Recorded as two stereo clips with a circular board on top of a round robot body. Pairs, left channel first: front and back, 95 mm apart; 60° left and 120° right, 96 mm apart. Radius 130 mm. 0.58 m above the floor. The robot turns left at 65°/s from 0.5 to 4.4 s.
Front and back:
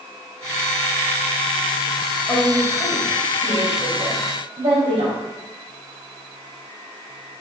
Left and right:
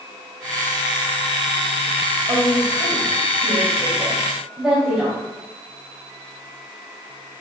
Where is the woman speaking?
60° right, 4 m; by 5.2 s 160° left, 4 m.